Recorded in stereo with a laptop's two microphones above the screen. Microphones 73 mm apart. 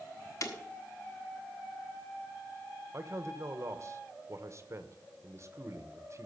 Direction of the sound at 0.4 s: 50° left (ahead or behind).